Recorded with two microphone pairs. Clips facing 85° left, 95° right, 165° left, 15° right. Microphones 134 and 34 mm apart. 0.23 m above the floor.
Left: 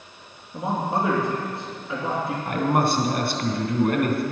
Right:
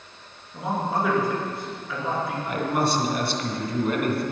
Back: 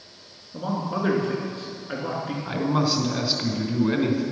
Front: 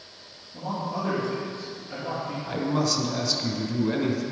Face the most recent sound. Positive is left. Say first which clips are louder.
# left 3 dB, back 2 dB
turn(degrees=110)